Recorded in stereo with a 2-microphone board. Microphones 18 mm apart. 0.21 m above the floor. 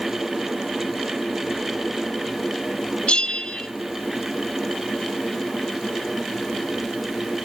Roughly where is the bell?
Left.